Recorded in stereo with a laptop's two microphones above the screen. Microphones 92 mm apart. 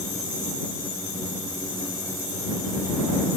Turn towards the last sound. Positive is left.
No sound to turn to.